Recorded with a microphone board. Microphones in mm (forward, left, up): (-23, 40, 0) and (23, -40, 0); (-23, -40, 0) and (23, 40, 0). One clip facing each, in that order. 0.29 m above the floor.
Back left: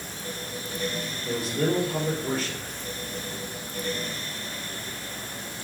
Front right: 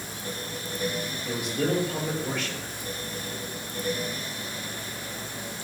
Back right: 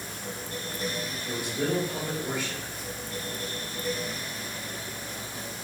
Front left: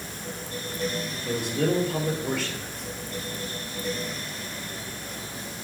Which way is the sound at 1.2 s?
65° left.